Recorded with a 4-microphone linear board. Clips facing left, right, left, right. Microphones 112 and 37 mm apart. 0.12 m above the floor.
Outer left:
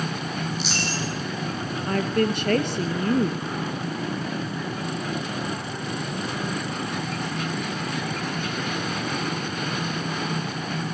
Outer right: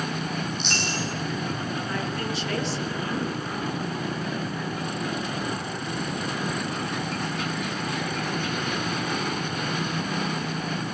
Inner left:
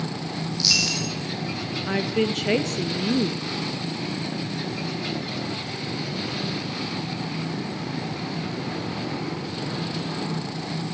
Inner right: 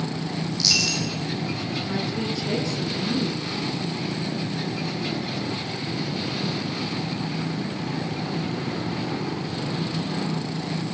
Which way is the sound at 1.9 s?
55° left (ahead or behind).